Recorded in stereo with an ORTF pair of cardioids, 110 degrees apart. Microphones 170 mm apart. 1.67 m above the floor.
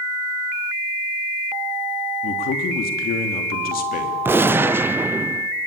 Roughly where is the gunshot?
Ahead.